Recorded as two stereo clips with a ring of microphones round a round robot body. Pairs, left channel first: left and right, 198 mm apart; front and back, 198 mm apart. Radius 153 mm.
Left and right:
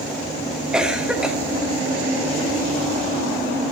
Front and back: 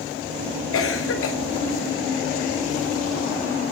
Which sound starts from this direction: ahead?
A cough, at 0.7 s.